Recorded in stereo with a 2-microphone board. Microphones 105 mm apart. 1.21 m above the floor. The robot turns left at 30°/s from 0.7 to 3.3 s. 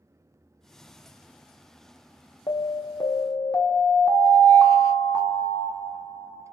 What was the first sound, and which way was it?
An alarm, 45° left (ahead or behind).